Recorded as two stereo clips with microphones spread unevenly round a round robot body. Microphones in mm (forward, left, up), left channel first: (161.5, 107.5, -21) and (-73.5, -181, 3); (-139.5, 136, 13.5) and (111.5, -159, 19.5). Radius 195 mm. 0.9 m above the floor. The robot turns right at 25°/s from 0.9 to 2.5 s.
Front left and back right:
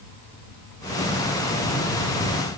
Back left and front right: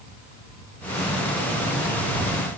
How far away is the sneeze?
I don't hear a sneeze.